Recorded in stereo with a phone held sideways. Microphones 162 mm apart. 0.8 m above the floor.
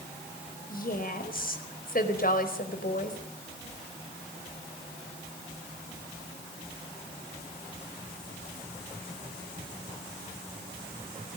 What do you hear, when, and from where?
0.7 s a woman speaking: 55° left (ahead or behind), 4.5 m